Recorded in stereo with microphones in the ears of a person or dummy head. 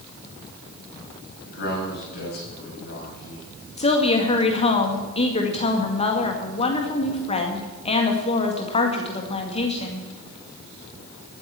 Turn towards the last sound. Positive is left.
turn(degrees=35)  # may be behind; listen again after turning